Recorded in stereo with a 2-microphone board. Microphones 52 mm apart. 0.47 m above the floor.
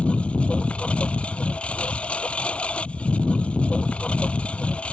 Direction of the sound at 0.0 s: 25° left (ahead or behind).